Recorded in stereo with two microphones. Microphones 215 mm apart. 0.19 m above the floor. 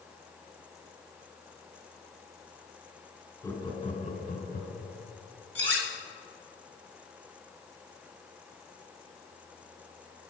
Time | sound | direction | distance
3.4 | laughter | 15° left (ahead or behind) | 1.6 m
5.5 | cutlery clinking | 60° right (ahead or behind) | 1.7 m